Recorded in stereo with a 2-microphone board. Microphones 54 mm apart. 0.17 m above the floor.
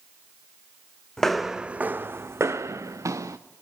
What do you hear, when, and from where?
1.2 s footsteps: 10° left (ahead or behind), 0.7 m; by 3.4 s 75° right (ahead or behind), 1.4 m